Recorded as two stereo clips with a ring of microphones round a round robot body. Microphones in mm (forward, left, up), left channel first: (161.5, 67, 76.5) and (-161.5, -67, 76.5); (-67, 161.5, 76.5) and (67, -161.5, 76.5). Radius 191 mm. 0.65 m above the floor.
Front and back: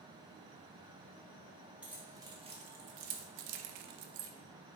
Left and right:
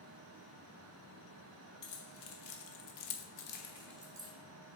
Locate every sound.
1.8 s keys jangling: 115° left, 1.0 m; by 4.3 s 140° right, 0.6 m